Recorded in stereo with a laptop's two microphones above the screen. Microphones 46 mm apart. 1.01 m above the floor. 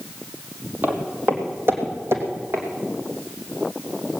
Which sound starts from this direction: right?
Footsteps, at 0.8 s.